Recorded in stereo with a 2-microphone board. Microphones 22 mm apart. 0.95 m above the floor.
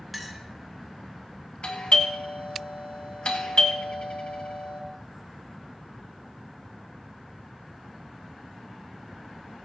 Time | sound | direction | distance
0.1 | a clink | centre (ahead or behind) | 1.5 m
1.6 | a doorbell | 65° left (ahead or behind) | 2.0 m